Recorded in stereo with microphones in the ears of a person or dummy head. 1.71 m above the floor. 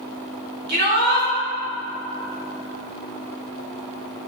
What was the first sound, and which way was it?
A shout, 50° right (ahead or behind).